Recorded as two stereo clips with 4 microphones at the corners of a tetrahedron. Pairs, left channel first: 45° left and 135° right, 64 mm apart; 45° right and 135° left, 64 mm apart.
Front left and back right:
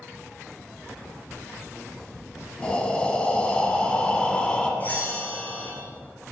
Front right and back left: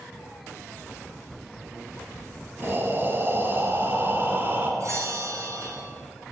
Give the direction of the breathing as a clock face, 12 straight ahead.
8 o'clock.